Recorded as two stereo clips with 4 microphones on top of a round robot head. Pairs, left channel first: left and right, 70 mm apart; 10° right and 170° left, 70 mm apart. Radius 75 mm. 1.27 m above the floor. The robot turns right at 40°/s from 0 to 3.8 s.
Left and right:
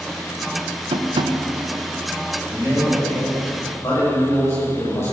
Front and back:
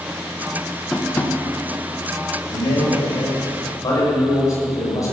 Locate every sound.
0.9 s tapping: 90° right, 1.2 m; by 1.4 s 70° right, 1.2 m
2.5 s a man speaking: 20° right, 7 m; by 5.1 s 30° left, 7 m